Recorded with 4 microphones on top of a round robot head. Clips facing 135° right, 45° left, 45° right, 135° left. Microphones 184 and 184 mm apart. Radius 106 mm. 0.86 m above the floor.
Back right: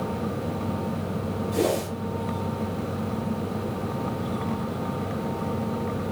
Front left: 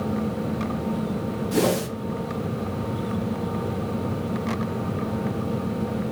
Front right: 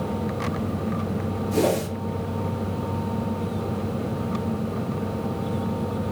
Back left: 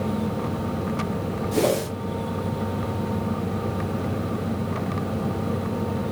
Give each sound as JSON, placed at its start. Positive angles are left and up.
{"t": 1.5, "sound": "a whoosh", "azimuth_deg": 50, "distance_m": 0.7}